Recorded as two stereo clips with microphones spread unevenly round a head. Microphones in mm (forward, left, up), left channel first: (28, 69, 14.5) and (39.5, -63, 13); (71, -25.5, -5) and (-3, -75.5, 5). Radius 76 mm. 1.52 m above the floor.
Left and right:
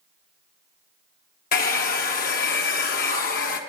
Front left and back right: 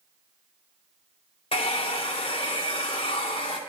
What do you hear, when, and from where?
1.5 s a hair dryer: 90° left, 1.1 m